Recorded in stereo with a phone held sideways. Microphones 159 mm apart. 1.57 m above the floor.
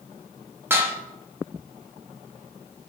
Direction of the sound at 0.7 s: 15° right (ahead or behind).